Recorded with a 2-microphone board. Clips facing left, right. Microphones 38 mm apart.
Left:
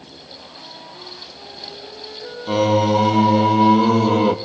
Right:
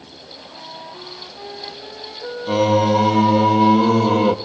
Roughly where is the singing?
Centre.